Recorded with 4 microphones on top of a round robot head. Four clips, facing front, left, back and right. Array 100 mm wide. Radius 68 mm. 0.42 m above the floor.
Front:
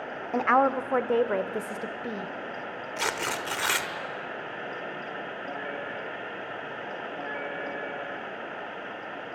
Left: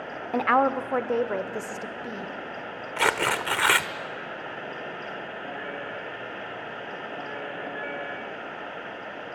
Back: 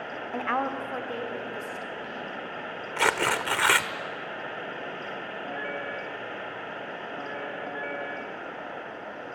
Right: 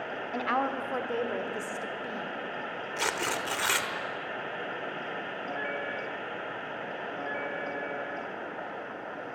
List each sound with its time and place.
0.3 s a woman speaking: 60° left, 1.0 m; by 2.3 s 15° left, 1.8 m
3.0 s tearing paper: 130° left, 1.2 m